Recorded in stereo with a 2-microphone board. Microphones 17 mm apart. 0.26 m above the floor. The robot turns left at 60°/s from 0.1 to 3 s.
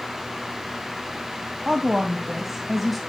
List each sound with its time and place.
1.6 s a woman speaking: 105° right, 2.0 m; by 3.0 s 175° left, 2.0 m